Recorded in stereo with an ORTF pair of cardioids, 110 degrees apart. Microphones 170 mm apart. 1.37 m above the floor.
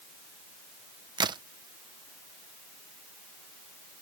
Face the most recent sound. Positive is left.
turn(degrees=-25)